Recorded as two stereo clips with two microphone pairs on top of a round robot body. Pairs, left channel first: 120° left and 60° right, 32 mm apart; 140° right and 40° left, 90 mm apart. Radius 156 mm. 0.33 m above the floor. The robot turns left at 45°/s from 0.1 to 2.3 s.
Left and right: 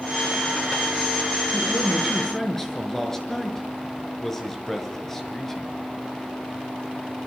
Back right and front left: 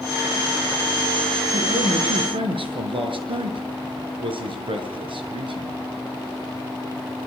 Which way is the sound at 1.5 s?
75° left.